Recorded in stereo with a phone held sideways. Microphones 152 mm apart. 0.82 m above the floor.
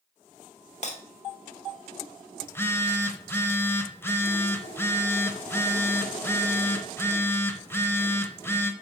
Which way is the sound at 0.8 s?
50° left (ahead or behind).